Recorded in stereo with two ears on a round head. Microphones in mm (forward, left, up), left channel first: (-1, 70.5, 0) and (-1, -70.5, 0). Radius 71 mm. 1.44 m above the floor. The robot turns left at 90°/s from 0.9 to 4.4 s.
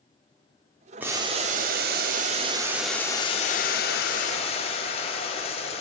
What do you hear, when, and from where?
1.0 s boiling: 10° right, 0.6 m; by 5.8 s 45° left, 0.6 m